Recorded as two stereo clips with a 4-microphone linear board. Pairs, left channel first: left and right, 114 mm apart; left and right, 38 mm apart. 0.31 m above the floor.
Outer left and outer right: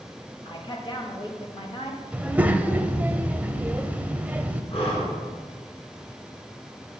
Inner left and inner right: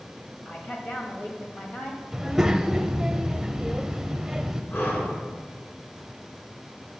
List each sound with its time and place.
0.5 s a woman speaking: 45° left (ahead or behind), 1.4 m
2.1 s a child speaking: 15° right (ahead or behind), 0.6 m
4.7 s breathing: 55° left (ahead or behind), 1.9 m